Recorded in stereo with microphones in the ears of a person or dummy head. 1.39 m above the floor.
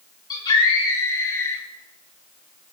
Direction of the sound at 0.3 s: 25° left (ahead or behind).